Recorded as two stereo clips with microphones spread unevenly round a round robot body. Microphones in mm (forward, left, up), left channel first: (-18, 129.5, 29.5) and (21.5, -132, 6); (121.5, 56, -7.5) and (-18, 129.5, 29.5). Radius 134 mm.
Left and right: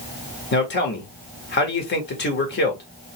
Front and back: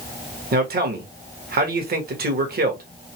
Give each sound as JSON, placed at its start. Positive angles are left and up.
{"t": 0.5, "sound": "a man speaking", "azimuth_deg": 145, "distance_m": 1.6}